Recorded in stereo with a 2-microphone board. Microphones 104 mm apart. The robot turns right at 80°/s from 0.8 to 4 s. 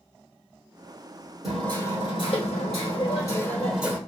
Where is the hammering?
5° right, 1.7 m; by 4.0 s 160° right, 1.7 m.